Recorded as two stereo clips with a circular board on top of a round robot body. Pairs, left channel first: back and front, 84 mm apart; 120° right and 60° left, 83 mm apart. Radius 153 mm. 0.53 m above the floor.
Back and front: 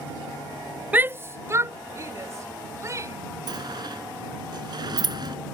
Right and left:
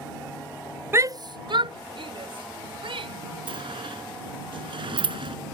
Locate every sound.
0.9 s a shout: 50° left; by 3.2 s 55° left
3.5 s a sliding door: 35° left